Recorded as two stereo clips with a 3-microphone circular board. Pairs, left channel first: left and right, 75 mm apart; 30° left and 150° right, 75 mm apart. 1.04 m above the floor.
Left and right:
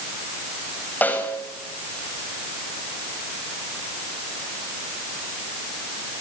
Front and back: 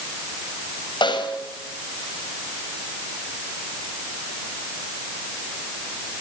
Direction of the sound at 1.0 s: 25° left.